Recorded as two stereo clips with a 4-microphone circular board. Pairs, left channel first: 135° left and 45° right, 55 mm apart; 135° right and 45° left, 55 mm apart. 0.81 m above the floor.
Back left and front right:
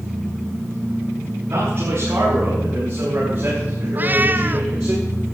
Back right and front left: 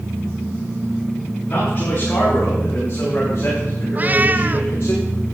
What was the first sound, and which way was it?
A man speaking, 75° right.